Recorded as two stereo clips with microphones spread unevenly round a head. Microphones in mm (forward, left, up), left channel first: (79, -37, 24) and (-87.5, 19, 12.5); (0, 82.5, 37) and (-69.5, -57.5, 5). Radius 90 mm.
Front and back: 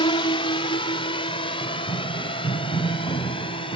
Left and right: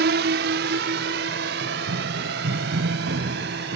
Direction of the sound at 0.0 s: 80° right.